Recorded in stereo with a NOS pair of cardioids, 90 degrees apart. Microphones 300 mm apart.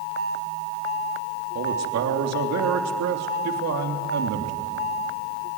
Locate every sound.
1.6 s a man speaking: 60° right, 3 m